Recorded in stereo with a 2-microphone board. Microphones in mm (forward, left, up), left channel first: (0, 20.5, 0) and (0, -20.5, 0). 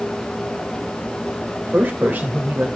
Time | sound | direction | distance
1.6 | a man speaking | 45° right (ahead or behind) | 2.0 m